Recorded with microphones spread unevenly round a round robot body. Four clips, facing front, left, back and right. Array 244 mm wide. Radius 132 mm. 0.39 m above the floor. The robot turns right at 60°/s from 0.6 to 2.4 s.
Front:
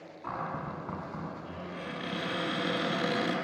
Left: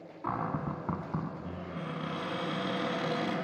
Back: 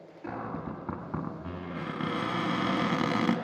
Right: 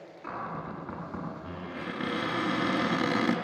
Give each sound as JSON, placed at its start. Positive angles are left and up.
{"t": 0.2, "sound": "a cupboard door", "azimuth_deg": 115, "distance_m": 1.1}